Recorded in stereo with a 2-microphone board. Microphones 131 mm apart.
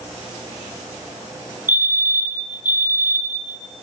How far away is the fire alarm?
About 2 m.